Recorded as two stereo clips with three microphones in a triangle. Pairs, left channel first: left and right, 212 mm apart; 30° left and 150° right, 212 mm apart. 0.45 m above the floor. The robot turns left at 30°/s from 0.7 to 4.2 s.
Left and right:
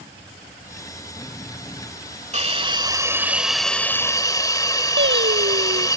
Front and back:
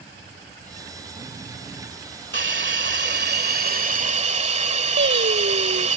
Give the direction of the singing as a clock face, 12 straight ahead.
4 o'clock.